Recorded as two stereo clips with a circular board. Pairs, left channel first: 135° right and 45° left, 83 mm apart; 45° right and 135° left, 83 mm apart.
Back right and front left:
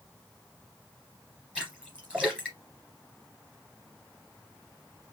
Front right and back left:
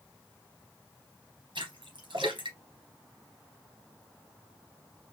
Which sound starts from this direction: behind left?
A splash, at 1.6 s.